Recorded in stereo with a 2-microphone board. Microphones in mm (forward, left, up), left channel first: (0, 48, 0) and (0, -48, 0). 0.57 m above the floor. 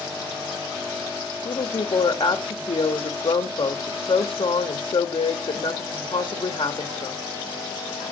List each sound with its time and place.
1.4 s a woman speaking: 65° left (ahead or behind), 1.5 m